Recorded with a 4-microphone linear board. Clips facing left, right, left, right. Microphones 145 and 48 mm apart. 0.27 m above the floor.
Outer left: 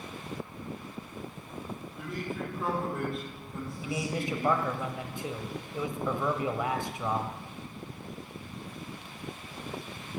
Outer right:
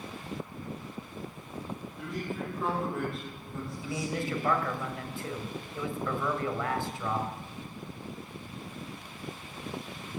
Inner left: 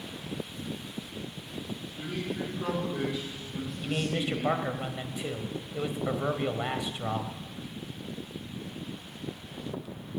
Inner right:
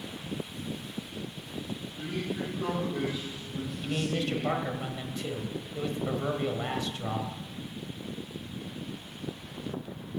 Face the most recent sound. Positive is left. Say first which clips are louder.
# outer left 1 dB, even
turn(degrees=20)  # may be behind; listen again after turning